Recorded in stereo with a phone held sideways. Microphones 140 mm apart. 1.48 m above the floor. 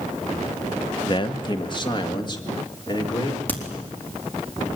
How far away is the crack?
About 3.5 m.